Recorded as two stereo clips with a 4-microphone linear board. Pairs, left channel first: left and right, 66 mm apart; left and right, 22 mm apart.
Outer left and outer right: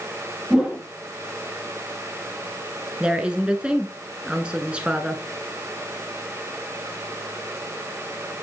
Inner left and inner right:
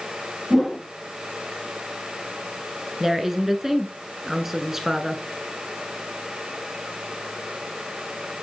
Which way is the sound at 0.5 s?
10° right (ahead or behind).